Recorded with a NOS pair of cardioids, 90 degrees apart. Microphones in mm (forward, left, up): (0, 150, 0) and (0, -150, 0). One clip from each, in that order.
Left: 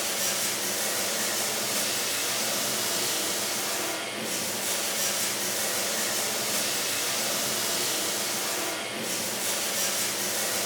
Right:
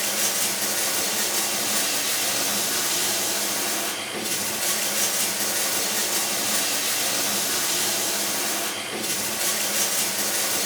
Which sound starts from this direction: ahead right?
Running water, at 0.0 s.